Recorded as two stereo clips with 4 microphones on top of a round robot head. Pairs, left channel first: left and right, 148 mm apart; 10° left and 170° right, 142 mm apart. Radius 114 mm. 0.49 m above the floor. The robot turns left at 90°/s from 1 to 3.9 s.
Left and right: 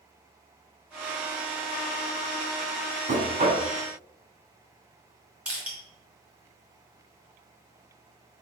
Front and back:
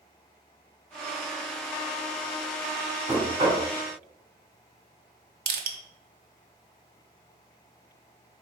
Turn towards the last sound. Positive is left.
turn(degrees=-170)